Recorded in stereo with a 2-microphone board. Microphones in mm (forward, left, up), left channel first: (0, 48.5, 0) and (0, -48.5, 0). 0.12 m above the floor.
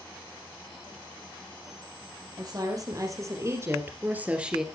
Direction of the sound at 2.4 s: 45° right (ahead or behind).